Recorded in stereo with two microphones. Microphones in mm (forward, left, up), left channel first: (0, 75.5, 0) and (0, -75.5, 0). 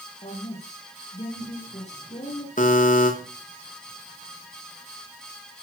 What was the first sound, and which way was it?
A woman speaking, 50° left (ahead or behind).